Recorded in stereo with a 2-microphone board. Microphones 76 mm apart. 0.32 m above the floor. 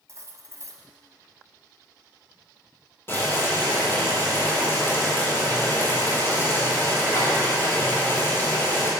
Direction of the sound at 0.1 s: 45° right (ahead or behind).